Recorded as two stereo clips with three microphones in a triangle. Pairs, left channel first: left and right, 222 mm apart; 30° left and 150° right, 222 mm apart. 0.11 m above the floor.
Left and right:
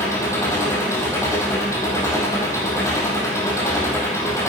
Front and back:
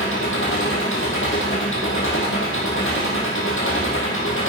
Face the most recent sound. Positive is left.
turn(degrees=15)